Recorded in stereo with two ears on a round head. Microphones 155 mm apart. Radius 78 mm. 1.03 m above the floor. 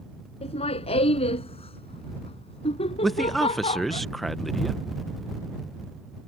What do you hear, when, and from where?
0.4 s laughter: 35° left (ahead or behind)
3.0 s a man speaking: centre (ahead or behind)